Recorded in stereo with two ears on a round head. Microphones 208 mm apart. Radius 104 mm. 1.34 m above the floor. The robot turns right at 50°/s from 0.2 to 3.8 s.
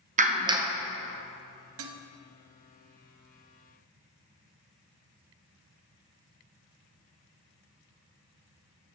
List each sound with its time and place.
0.2 s a clap: 35° right (ahead or behind), 0.7 m; by 0.7 s 5° right (ahead or behind), 0.7 m
1.8 s dishes clattering: 65° right (ahead or behind), 0.7 m; by 2.0 s 60° right (ahead or behind), 0.7 m